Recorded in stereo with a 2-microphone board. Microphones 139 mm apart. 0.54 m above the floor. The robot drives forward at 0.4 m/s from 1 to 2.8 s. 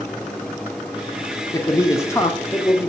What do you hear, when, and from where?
1.5 s a man speaking: 20° left (ahead or behind), 0.8 m; by 2.9 s 15° left (ahead or behind), 1.0 m